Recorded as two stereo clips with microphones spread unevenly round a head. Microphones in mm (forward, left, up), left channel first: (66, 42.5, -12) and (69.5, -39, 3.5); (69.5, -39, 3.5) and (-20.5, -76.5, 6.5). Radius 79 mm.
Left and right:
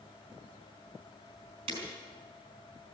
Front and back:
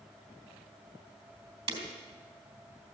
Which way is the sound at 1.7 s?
125° right.